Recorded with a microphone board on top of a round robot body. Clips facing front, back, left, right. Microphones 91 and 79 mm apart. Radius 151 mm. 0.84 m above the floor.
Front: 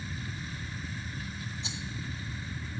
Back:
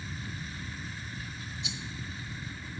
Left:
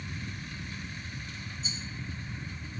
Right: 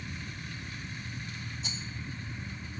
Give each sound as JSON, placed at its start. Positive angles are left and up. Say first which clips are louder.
{"t": 1.6, "sound": "a rattle", "louder": "even, even", "azimuth_deg": -60, "distance_m": 0.5}